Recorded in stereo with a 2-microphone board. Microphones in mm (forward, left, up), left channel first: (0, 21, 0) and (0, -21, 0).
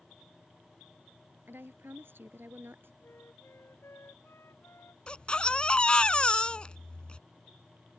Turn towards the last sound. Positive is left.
turn(degrees=25)  # may be behind; listen again after turning